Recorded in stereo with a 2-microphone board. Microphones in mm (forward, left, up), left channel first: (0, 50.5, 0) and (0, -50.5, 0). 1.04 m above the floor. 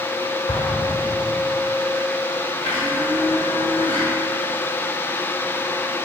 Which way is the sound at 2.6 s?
65° left (ahead or behind).